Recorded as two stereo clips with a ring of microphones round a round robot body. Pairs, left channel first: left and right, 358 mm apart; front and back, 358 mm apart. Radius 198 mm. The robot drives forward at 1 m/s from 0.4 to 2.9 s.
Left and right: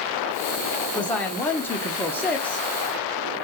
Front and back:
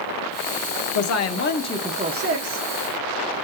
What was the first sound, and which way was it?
A woman speaking, 5° left.